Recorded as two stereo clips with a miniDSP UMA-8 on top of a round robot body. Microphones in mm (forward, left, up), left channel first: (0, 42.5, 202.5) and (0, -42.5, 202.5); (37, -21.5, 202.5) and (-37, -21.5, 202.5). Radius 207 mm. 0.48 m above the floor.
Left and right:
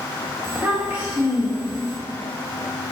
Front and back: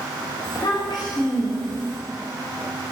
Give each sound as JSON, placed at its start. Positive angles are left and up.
{"t": 0.4, "sound": "a child speaking", "azimuth_deg": -20, "distance_m": 1.6}